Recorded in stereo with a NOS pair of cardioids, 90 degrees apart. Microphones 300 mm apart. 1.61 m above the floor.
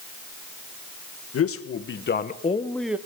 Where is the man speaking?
50° left, 1.8 m; by 3.0 s 5° right, 0.9 m.